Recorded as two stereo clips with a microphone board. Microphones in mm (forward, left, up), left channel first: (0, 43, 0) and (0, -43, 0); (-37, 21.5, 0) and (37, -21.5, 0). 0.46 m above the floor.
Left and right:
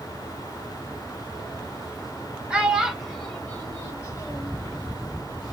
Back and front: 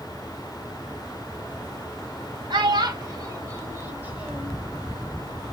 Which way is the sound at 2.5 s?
15° right.